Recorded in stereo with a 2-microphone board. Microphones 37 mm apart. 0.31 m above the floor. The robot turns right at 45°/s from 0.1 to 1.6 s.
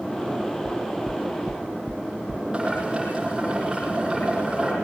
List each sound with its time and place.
0.7 s knocking: 15° right (ahead or behind), 1.0 m; by 2.4 s 25° right (ahead or behind), 1.0 m
2.5 s boiling: 20° right (ahead or behind), 9.5 m